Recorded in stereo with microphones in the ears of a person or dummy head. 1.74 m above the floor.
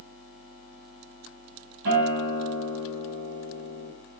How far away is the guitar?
About 1.4 m.